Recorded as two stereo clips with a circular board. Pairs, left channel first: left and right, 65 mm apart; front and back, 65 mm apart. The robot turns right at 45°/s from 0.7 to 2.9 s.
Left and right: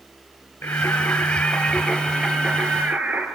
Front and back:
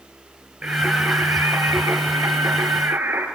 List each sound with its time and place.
0.6 s singing: 120° left, 2 m; by 3.3 s 140° right, 2 m